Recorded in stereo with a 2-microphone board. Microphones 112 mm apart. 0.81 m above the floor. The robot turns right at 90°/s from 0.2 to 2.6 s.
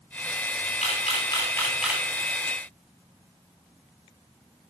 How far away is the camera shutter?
About 3 m.